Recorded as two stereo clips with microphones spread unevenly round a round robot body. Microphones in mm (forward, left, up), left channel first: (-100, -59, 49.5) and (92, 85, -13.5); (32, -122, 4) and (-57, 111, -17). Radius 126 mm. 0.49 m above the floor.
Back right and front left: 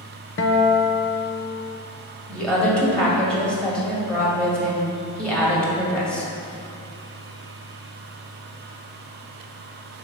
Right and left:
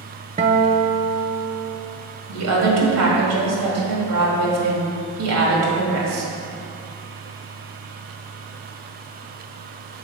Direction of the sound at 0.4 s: 175° left.